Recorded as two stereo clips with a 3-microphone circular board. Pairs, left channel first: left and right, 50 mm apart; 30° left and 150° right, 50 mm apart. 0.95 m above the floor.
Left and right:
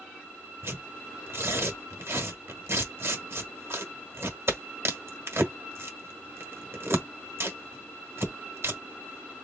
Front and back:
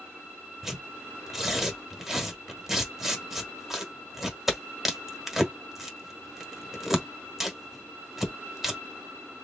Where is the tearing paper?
70° right, 1.4 m.